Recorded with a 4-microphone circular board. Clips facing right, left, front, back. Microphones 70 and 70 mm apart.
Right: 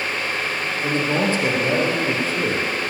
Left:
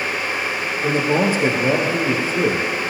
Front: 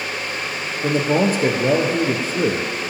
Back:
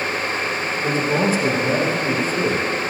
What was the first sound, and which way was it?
A man speaking, 20° left.